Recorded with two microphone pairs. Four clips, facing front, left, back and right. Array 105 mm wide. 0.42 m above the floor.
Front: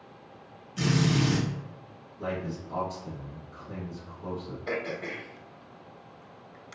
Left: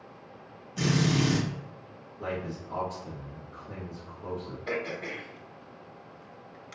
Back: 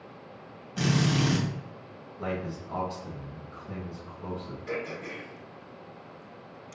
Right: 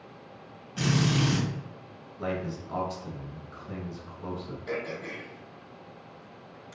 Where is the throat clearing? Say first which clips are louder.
Left 1 dB, front 2 dB; 20° left, 0.8 m.